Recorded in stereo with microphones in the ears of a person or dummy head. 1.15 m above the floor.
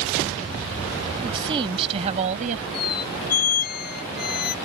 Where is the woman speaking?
30° right (ahead or behind); by 2.6 s 45° right (ahead or behind).